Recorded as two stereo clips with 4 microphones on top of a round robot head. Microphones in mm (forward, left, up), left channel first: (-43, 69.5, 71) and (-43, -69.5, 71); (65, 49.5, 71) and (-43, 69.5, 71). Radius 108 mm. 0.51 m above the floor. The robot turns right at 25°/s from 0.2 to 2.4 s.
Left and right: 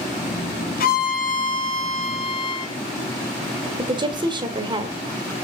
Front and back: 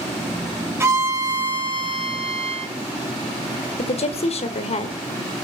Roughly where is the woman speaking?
Ahead right.